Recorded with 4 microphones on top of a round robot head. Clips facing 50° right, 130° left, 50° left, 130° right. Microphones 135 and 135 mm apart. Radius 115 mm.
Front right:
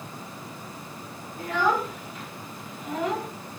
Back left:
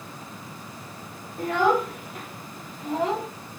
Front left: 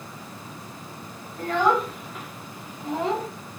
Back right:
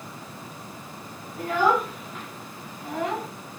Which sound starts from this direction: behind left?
A child speaking, at 1.4 s.